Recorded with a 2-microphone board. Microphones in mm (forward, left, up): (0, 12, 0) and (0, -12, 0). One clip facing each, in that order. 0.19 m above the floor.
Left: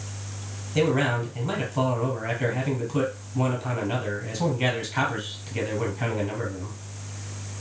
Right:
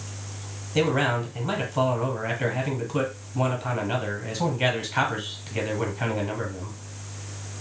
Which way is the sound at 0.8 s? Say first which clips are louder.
Even; 15° right (ahead or behind).